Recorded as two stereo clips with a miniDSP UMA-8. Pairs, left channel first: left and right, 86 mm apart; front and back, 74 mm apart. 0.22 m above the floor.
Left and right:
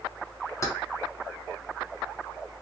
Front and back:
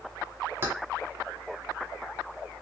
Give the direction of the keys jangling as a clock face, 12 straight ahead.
8 o'clock.